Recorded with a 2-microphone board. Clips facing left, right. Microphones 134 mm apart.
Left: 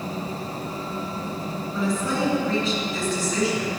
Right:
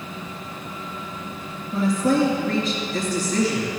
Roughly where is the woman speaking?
Right.